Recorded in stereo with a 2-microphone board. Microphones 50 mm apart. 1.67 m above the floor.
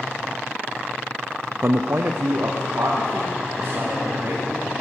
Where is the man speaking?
50° right (ahead or behind), 0.6 m; by 4.7 s 45° right (ahead or behind), 4 m.